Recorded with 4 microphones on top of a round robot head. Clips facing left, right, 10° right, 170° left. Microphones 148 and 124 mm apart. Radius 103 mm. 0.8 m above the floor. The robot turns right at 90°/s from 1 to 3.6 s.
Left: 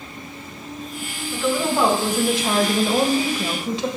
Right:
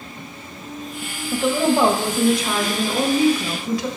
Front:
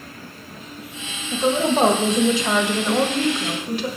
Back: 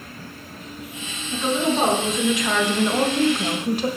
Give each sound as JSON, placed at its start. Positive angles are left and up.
{"t": 1.3, "sound": "a woman speaking", "azimuth_deg": -60, "distance_m": 1.3}